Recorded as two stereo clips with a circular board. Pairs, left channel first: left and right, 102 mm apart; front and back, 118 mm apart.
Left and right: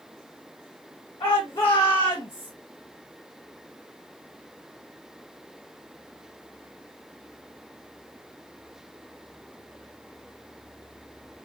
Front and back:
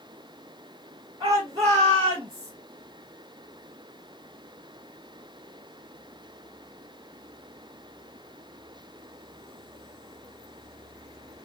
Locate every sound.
1.2 s a shout: 115° left, 2 m; by 2.5 s 140° left, 1.8 m